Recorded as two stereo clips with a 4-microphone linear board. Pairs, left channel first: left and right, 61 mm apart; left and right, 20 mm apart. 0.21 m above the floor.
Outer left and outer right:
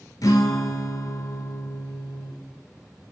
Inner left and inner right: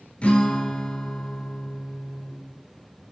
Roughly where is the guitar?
Left.